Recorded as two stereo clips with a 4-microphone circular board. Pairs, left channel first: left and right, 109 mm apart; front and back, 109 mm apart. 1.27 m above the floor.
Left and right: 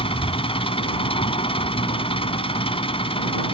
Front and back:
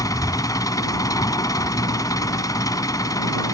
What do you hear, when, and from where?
0.0 s an engine running: 55° left